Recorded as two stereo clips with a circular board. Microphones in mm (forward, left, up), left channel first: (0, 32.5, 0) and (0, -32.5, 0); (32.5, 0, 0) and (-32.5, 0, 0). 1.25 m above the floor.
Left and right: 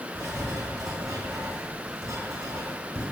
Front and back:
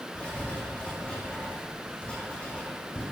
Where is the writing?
70° right, 4 m.